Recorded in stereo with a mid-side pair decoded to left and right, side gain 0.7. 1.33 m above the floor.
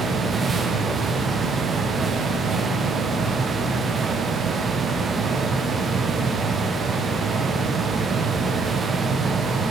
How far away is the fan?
About 0.8 m.